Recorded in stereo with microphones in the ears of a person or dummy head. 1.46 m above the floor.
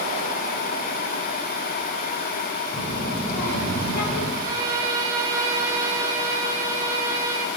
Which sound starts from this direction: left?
A child speaking, at 2.7 s.